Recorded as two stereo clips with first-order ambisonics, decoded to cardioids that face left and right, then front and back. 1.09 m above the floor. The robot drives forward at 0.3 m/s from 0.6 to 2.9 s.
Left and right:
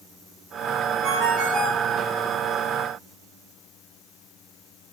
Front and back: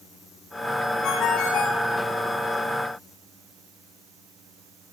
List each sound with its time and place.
1.0 s a ringtone: 40° right, 7.5 m; by 1.9 s 45° right, 7.5 m